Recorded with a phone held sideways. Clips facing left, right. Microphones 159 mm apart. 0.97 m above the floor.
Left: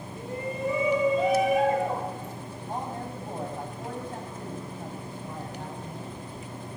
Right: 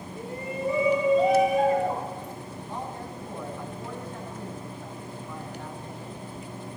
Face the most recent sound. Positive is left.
turn(degrees=60)  # may be behind; listen again after turning